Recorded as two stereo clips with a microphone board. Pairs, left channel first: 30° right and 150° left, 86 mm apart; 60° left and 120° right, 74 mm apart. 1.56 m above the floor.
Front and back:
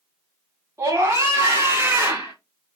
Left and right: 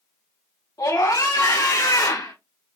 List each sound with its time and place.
0.8 s a scream: 90° left, 2.0 m; by 2.3 s 80° left, 2.5 m